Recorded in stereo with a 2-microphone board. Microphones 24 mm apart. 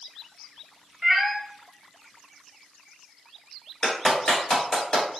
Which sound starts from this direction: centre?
A cat meowing, at 1.0 s.